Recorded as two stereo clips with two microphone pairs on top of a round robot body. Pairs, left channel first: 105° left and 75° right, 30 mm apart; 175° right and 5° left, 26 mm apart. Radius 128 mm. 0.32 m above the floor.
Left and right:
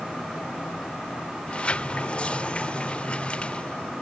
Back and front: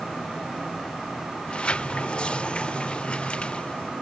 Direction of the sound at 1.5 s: 155° left.